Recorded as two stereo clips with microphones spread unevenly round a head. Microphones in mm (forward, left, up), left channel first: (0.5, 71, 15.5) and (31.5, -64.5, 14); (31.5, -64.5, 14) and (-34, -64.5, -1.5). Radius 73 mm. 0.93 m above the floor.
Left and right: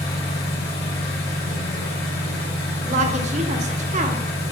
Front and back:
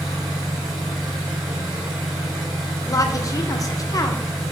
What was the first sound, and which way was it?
An engine running, 130° left.